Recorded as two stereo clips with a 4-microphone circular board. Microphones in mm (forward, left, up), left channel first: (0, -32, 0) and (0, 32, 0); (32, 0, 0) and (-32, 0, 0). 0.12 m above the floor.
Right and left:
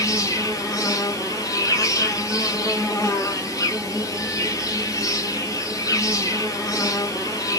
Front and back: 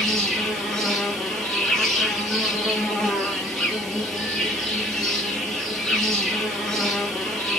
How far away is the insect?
About 1.4 m.